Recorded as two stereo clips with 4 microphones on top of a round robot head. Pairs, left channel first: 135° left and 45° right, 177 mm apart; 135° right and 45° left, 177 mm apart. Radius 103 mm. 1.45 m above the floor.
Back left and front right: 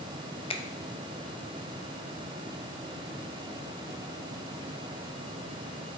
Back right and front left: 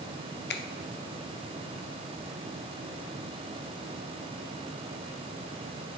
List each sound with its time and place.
0.5 s a finger snap: 165° right, 0.8 m